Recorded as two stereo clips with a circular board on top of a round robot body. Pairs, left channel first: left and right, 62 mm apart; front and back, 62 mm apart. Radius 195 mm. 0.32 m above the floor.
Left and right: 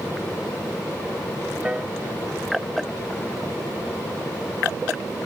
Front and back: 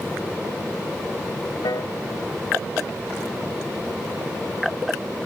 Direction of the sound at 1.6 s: 15° right.